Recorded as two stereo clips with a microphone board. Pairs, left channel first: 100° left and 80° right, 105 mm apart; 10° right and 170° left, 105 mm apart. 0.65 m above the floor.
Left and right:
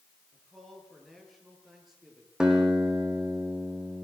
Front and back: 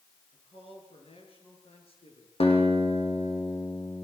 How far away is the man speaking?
About 9 m.